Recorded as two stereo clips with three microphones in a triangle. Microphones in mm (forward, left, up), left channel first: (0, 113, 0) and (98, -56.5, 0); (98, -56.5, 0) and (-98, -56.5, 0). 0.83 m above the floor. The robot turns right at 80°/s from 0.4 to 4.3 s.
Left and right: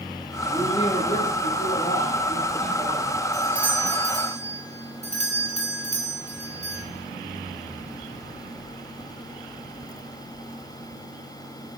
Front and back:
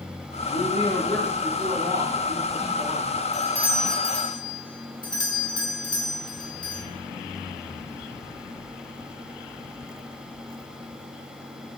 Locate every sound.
0.5 s a woman speaking: 30° left, 2.5 m; by 3.2 s 105° right, 2.5 m
3.3 s a doorbell: 125° right, 1.1 m; by 6.8 s 50° right, 1.1 m